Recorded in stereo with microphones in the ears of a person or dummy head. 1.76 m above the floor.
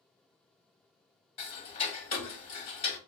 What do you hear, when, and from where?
1.4 s ticking: 35° left (ahead or behind), 0.7 m